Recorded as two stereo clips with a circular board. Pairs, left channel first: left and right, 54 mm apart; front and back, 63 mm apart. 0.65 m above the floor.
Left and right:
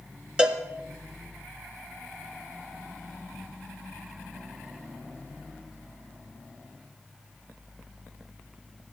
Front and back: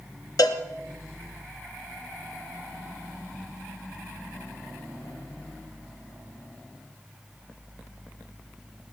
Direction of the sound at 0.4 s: 15° right.